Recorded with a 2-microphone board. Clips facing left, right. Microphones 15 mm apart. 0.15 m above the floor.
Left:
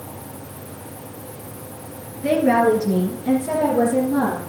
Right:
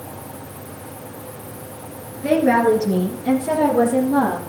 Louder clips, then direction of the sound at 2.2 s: Right 1 dB; 5° right (ahead or behind).